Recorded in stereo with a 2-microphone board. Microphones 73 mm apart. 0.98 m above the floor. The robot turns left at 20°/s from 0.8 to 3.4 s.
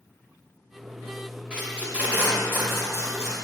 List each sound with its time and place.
1.5 s tape being pulled: 10° right (ahead or behind), 2.0 m; by 3.4 s 45° right (ahead or behind), 2.0 m